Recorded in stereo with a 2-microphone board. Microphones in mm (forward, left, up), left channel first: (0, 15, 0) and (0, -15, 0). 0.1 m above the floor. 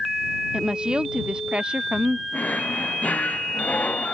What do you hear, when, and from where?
0.5 s a woman speaking: 30° right (ahead or behind); by 2.2 s 35° right (ahead or behind)
2.3 s a drawer: 55° left (ahead or behind)